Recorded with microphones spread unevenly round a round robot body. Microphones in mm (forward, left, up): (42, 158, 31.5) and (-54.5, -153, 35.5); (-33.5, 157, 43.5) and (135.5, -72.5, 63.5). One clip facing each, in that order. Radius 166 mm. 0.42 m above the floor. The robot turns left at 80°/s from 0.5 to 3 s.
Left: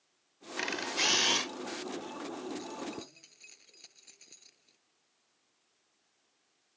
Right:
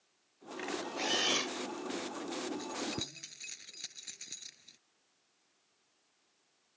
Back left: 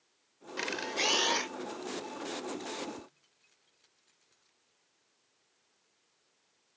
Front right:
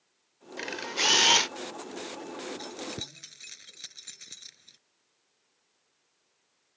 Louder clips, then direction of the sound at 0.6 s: Left 1 dB, even; 55° left.